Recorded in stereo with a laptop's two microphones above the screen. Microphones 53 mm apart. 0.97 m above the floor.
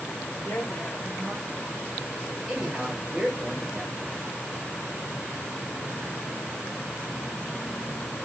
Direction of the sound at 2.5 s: 10° right (ahead or behind).